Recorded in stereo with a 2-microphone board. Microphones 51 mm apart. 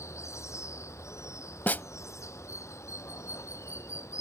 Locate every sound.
0.0 s running water: 70° left (ahead or behind)
1.7 s a snare drum: 35° left (ahead or behind)